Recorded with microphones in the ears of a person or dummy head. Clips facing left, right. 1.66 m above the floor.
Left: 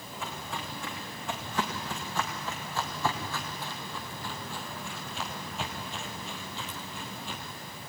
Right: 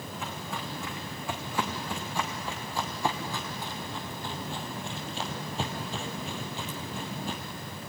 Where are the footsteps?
10° right (ahead or behind), 5 m; by 7.4 s 35° right (ahead or behind), 2 m.